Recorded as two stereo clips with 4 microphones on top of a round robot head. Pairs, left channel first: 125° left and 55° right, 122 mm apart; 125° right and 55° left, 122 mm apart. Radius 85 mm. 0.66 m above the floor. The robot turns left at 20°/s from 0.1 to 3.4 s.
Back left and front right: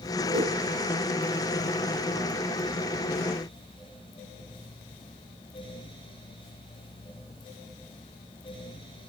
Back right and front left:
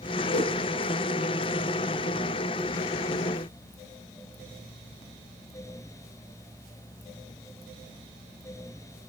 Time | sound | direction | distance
0.3 | a whoosh | 105° right | 1.5 m